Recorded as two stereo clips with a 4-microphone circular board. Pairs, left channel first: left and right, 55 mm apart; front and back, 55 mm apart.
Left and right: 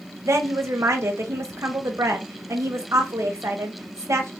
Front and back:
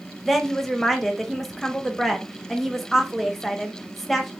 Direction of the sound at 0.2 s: 90° right.